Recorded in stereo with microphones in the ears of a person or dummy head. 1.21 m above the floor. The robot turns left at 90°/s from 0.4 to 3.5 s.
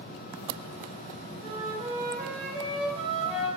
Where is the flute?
Straight ahead, 1.5 m; by 3.5 s 175° left, 1.5 m.